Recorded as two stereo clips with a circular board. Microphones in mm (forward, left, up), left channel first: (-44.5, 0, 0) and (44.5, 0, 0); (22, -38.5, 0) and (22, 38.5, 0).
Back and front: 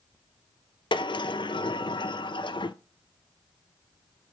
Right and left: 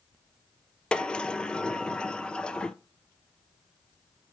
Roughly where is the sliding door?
Behind.